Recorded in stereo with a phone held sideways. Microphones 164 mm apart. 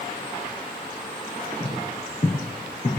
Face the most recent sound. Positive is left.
turn(degrees=40)  # may be behind; listen again after turning